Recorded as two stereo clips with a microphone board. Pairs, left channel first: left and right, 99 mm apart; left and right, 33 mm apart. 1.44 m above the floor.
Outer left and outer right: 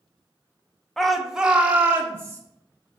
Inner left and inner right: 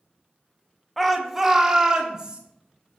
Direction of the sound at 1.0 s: 5° left (ahead or behind).